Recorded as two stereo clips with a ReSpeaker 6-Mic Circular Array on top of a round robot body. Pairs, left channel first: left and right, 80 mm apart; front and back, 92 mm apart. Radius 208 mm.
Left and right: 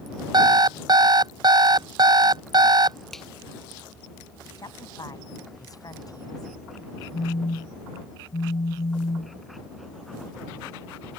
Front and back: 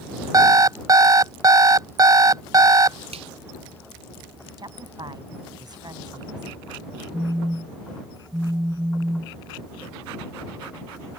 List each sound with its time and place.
0.3 s an alarm clock: 125° right
3.1 s a finger snap: 175° left
4.6 s a woman speaking: 135° left
7.1 s a phone buzzing: 105° left